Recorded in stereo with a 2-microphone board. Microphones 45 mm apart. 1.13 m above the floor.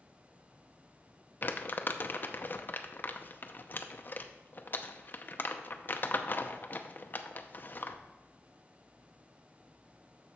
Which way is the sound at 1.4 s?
40° left (ahead or behind).